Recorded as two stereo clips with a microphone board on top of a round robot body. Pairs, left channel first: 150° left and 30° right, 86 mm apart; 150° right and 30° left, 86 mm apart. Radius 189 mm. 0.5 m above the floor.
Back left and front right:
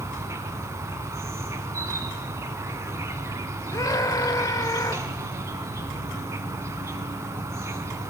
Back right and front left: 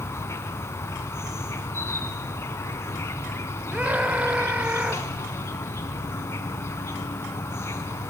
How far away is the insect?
About 1.4 m.